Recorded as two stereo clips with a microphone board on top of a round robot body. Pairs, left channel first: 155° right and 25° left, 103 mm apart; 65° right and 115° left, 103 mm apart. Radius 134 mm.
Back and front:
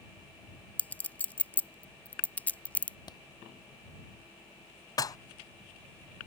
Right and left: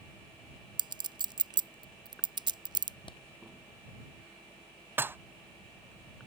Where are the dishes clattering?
170° left.